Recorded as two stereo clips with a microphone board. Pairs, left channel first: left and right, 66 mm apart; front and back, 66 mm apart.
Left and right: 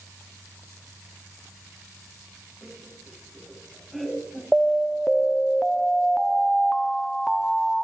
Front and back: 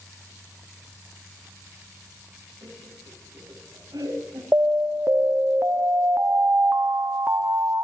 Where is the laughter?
Straight behind, 7.5 m.